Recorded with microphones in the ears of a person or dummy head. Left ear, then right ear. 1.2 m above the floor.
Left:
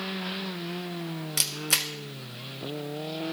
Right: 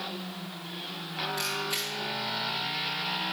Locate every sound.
1.4 s a camera shutter: 40° left (ahead or behind), 1.0 m